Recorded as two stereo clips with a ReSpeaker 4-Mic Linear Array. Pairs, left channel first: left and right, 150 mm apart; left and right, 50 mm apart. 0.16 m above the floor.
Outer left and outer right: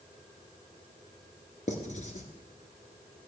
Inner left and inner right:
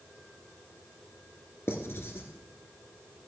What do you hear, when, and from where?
1.7 s writing: 55° left (ahead or behind), 1.4 m